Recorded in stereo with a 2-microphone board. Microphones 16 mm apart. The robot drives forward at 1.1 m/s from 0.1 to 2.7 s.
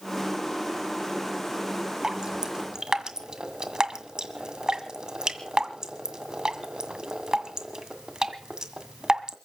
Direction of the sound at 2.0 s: 45° right (ahead or behind).